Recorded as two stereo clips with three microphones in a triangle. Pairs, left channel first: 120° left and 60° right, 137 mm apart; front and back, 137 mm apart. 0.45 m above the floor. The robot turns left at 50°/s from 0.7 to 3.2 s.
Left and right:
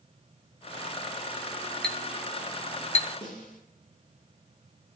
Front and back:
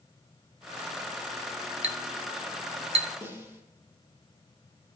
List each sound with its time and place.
1.8 s a clink: 155° right, 1.5 m; by 3.1 s 140° left, 1.5 m
3.2 s a snare drum: 105° left, 5.5 m